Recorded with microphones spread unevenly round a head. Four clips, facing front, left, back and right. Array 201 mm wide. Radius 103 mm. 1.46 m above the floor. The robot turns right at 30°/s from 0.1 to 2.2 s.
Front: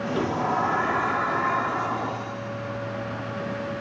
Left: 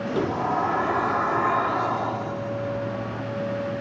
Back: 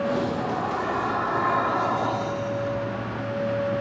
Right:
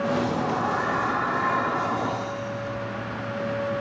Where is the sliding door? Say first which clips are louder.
Left 1 dB, front 1 dB; 75° left; by 3.2 s 135° left.